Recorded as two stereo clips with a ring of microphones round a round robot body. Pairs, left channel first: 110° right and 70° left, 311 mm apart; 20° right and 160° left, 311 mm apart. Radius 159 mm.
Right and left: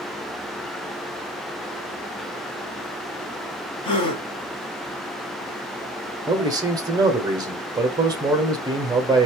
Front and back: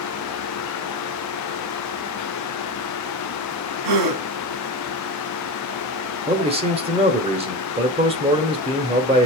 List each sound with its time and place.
3.8 s a gasp: 175° left, 1.3 m
6.3 s a man speaking: 125° left, 1.0 m